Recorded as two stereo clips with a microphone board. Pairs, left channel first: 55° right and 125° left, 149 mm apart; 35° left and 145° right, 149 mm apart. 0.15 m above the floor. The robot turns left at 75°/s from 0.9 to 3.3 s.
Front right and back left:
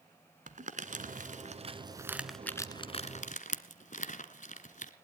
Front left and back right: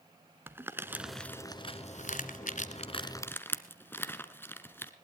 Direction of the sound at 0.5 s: 140° left.